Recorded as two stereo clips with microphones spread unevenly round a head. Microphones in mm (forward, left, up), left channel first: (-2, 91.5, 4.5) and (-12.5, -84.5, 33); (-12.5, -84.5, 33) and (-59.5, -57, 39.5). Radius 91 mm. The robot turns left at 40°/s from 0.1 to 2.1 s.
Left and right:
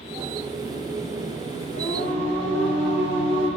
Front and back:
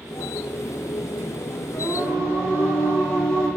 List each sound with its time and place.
1.7 s singing: 5° left, 1.0 m; by 3.5 s 10° right, 1.0 m